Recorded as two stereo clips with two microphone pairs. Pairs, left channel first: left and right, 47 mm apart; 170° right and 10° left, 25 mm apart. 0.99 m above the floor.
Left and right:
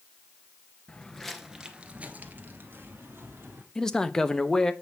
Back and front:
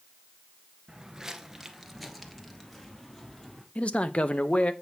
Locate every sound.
0.9 s footsteps: 45° left, 1.0 m; by 3.6 s 100° right, 2 m
3.8 s a man speaking: 165° left, 0.7 m